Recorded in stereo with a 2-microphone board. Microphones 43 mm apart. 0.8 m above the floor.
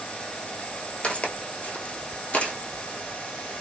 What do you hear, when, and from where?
1.0 s footsteps: 35° left (ahead or behind), 1.1 m